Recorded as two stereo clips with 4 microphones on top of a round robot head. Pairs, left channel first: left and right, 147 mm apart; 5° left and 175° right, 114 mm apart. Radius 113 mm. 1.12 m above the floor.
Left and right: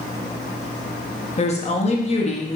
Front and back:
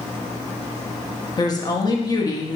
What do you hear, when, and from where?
1.4 s a woman speaking: 55° left, 1.0 m